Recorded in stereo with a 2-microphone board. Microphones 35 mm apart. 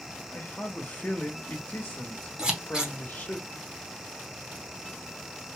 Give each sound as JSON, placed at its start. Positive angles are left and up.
{"t": 0.3, "sound": "a man speaking", "side_deg": 70, "distance_m": 1.0}
{"t": 2.4, "sound": "scissors", "side_deg": -25, "distance_m": 1.0}